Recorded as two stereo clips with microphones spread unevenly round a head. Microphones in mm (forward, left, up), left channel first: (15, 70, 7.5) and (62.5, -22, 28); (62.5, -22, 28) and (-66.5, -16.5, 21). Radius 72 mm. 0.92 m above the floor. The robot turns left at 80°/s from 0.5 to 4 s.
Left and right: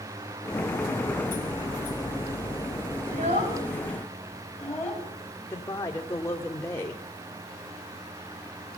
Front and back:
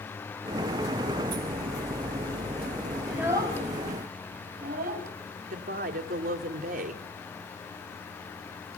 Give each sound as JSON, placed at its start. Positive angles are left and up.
{"t": 3.1, "sound": "a child speaking", "azimuth_deg": -95, "distance_m": 5.5}
{"t": 5.5, "sound": "a woman speaking", "azimuth_deg": -170, "distance_m": 2.0}